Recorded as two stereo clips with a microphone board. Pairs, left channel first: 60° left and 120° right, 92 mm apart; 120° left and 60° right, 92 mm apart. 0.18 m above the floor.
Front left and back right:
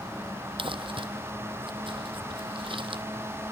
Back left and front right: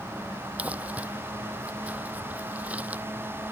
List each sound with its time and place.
0.6 s crumpling: 135° right